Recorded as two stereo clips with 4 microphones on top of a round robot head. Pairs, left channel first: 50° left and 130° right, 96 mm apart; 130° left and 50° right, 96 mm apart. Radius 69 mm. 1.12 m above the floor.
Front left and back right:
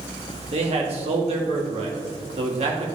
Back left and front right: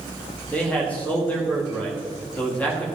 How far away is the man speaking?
About 2 m.